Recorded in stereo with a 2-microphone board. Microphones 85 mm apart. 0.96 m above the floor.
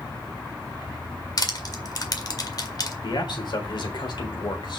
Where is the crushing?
50° left (ahead or behind), 1.8 m.